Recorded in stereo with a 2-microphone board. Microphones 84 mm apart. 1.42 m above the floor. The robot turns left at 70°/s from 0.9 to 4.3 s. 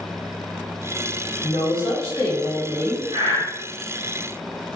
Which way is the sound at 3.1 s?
65° right (ahead or behind).